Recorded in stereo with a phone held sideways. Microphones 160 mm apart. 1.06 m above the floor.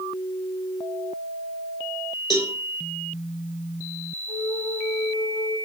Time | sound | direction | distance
2.3 | a cowbell | 30° left (ahead or behind) | 3.5 m
4.3 | a flute | 40° left (ahead or behind) | 6.5 m